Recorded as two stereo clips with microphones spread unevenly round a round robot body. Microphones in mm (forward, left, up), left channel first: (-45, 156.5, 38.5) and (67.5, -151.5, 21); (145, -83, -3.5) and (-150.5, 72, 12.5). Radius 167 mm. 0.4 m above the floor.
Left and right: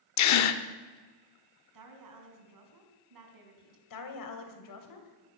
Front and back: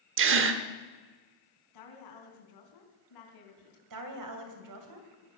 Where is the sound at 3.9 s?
125° left, 3 m.